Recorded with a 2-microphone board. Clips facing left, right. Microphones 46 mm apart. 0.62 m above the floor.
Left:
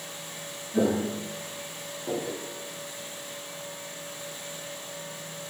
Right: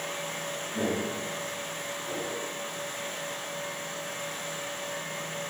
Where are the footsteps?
70° left (ahead or behind), 1.9 m; by 2.4 s 60° left (ahead or behind), 3 m.